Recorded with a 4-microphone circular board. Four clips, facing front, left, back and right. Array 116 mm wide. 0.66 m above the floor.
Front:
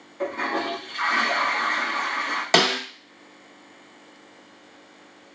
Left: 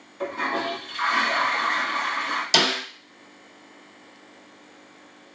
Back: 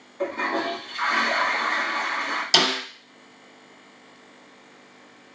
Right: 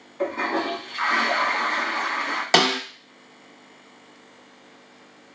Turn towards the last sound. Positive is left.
turn(degrees=-45)